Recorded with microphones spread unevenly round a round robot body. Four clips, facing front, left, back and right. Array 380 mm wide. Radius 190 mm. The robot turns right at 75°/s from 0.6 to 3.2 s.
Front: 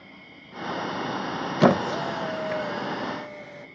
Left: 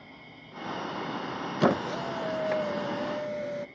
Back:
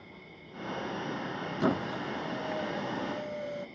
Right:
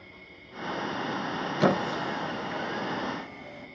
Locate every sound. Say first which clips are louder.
0.0 s an insect: left 1 dB, front 2 dB; 55° left, 3 m; by 3.8 s 110° right, 3 m
1.6 s a squeak: even, front 10 dB; 10° right, 0.5 m; by 3.7 s 110° left, 0.5 m